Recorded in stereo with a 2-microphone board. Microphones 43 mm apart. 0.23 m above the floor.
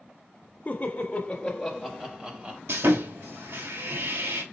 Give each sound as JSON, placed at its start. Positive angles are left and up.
{"t": 0.7, "sound": "laughter", "side_deg": 40, "distance_m": 1.4}
{"t": 2.7, "sound": "sawing", "side_deg": -75, "distance_m": 1.7}